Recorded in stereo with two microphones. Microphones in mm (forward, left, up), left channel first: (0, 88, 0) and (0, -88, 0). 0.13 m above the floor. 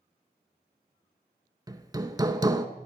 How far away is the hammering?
About 0.7 m.